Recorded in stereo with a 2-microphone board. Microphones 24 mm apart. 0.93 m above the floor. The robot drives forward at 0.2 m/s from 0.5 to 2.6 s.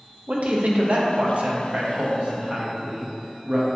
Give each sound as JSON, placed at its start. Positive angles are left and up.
{"t": 0.3, "sound": "a man speaking", "side_deg": -60, "distance_m": 0.6}